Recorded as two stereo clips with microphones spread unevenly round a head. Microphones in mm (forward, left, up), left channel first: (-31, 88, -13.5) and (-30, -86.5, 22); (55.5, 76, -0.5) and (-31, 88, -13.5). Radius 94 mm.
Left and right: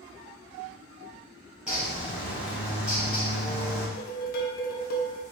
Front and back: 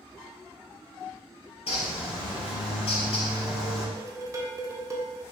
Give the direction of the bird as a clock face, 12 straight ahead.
12 o'clock.